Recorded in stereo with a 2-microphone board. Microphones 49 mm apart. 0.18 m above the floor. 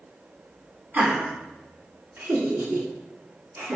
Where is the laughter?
35° right (ahead or behind), 1.4 m; by 3.8 s 65° right (ahead or behind), 2.5 m.